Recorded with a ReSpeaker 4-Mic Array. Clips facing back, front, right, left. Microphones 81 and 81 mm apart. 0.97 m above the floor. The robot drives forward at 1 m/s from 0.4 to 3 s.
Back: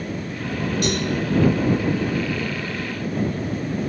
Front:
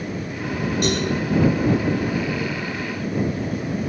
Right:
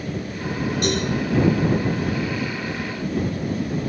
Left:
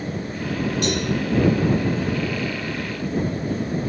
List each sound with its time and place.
0.8 s a cowbell: 45° right, 7 m